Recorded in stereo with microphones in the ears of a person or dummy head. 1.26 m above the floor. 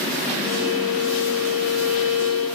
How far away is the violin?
About 7 m.